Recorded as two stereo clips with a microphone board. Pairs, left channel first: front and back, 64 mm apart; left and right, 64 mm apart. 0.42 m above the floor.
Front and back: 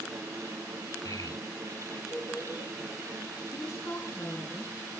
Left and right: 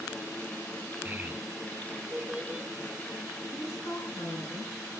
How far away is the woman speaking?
About 4.5 m.